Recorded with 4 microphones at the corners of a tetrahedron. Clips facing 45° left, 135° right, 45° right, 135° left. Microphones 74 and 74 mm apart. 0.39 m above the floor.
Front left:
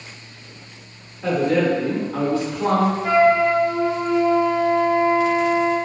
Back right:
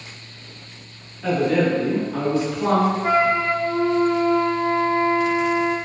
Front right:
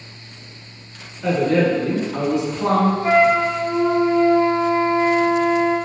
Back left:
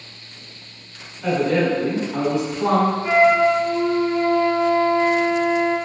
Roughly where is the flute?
Right.